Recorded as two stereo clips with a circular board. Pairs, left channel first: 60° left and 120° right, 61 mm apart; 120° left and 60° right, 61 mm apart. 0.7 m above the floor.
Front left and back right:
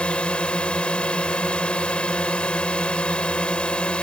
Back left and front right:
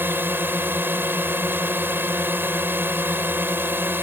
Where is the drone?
10° right.